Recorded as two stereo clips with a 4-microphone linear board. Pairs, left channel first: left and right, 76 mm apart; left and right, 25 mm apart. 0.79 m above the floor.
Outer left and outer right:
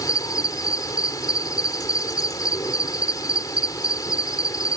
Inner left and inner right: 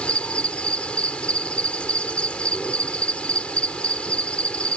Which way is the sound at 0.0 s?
55° left (ahead or behind).